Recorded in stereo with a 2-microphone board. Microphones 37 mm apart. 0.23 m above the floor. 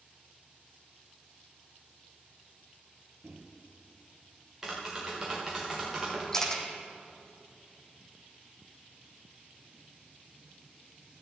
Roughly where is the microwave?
Right.